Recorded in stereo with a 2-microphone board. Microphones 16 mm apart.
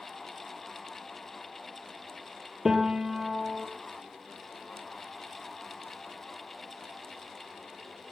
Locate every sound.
2.6 s a piano: 30° right (ahead or behind), 1.9 m